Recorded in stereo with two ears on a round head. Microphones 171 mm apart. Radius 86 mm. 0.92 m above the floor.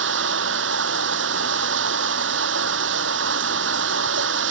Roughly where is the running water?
Right.